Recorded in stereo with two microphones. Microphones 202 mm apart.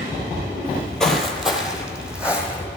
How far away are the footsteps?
About 0.7 m.